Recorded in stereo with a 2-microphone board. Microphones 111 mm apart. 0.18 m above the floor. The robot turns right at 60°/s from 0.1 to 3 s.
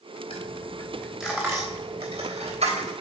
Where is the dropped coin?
50° left (ahead or behind), 3 m; by 2.9 s 70° right (ahead or behind), 3 m.